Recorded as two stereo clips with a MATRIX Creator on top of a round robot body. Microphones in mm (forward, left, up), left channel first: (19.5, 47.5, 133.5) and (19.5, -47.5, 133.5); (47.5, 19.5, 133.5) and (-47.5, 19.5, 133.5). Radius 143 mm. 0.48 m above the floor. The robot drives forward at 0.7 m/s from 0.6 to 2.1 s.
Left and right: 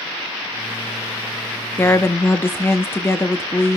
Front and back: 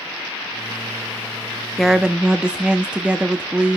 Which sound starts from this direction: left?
A woman speaking, at 1.8 s.